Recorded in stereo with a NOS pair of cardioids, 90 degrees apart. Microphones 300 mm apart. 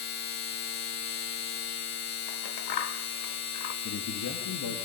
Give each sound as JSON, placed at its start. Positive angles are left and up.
{"t": 0.0, "sound": "a machine running", "azimuth_deg": 65, "distance_m": 1.4}
{"t": 2.3, "sound": "scissors", "azimuth_deg": 70, "distance_m": 1.3}
{"t": 3.9, "sound": "a man speaking", "azimuth_deg": 70, "distance_m": 3.0}